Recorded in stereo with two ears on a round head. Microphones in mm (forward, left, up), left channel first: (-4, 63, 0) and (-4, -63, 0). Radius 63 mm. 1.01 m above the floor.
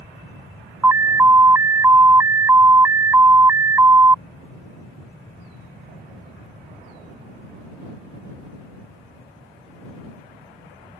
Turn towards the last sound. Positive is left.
turn(degrees=-15)  # may be behind; listen again after turning